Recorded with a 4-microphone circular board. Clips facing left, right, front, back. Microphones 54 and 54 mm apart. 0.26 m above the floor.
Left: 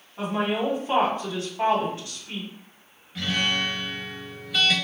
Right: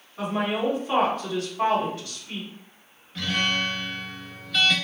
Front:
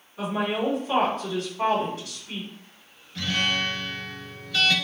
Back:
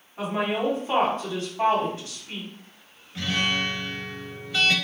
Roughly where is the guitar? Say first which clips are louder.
Even, even; behind.